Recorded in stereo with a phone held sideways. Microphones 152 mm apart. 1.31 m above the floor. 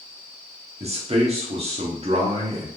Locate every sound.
0.8 s a man speaking: 45° right (ahead or behind), 0.9 m